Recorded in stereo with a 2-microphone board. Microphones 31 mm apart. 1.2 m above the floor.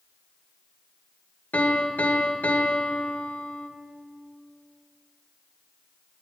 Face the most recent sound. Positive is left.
turn(degrees=65)  # may be behind; listen again after turning